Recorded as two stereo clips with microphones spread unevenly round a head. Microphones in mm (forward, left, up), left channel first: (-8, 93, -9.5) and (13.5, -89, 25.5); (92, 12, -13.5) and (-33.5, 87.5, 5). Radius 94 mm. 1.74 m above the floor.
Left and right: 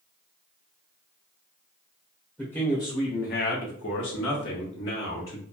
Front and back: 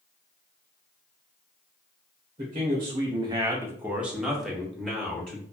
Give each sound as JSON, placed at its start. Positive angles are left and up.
{"t": 2.4, "sound": "a man speaking", "azimuth_deg": -170, "distance_m": 0.7}